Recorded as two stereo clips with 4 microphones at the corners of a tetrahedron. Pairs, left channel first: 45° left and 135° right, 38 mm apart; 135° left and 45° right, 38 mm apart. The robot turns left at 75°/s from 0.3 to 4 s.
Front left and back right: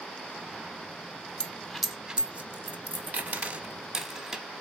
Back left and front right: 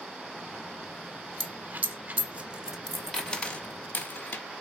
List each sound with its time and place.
1.4 s a dropped coin: 15° right, 0.9 m; by 4.5 s 150° left, 0.9 m